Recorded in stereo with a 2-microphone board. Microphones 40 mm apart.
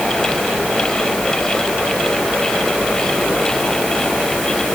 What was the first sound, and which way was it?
Only background noise.